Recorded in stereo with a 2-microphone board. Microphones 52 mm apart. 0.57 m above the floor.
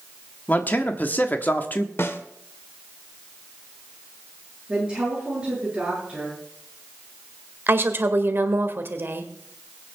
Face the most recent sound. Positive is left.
turn(degrees=-45)  # may be behind; listen again after turning